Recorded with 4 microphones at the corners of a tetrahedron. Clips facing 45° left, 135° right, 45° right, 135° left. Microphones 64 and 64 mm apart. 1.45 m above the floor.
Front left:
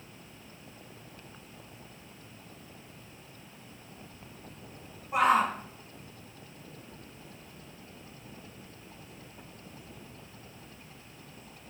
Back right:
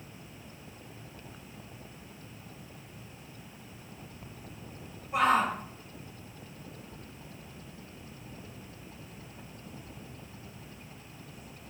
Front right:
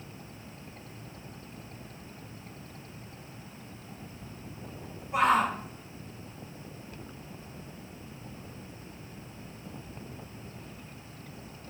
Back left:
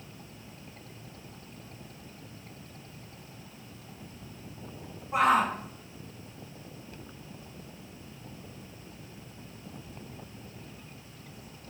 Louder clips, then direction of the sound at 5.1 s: Front left 1 dB, back left 1 dB; 90° left.